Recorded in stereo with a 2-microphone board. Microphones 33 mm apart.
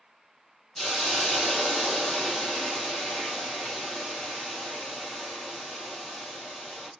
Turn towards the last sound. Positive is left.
turn(degrees=20)  # may be behind; listen again after turning